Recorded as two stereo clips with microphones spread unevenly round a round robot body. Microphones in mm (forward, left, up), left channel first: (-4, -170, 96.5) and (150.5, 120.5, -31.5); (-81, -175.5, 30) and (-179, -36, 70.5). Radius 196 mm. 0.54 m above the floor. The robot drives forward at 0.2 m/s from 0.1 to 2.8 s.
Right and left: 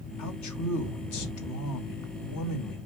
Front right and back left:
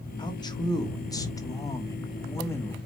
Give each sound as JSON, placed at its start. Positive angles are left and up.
{"t": 0.2, "sound": "a man speaking", "azimuth_deg": -75, "distance_m": 1.5}